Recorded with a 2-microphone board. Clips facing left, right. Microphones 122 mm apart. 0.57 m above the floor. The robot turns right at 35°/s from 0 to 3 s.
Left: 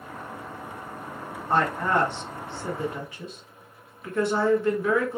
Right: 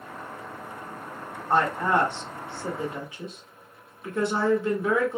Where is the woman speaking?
10° right (ahead or behind), 1.1 m; by 5.2 s 20° right (ahead or behind), 1.1 m.